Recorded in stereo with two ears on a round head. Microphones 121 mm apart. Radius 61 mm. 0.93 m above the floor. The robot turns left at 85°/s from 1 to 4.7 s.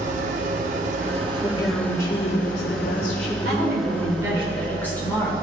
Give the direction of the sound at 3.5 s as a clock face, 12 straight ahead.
3 o'clock.